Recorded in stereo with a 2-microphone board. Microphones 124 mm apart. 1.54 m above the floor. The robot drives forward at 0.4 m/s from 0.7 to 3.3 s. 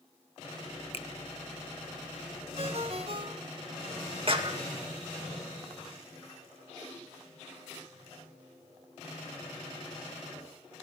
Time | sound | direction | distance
0.9 | a finger snap | 50° left (ahead or behind) | 0.9 m
2.6 | a ringtone | 50° right (ahead or behind) | 1.5 m
4.3 | a clap | 45° right (ahead or behind) | 2.0 m